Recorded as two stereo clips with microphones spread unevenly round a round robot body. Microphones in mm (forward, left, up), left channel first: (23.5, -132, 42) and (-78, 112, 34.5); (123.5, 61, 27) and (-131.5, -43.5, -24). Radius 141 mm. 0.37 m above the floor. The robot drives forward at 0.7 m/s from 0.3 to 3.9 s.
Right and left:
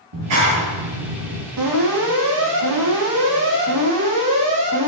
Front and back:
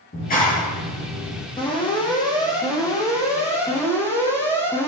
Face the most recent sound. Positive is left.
turn(degrees=105)